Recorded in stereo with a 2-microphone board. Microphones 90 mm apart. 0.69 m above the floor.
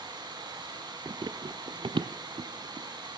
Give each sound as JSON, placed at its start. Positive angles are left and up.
{"t": 0.0, "sound": "running water", "side_deg": -50, "distance_m": 5.0}
{"t": 1.1, "sound": "running footsteps", "side_deg": -40, "distance_m": 1.0}